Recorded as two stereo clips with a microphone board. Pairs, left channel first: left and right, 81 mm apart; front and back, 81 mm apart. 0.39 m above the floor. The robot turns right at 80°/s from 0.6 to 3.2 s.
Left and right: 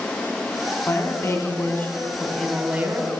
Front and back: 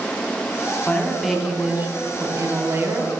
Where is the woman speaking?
60° left, 1.5 m; by 3.1 s 120° right, 1.5 m.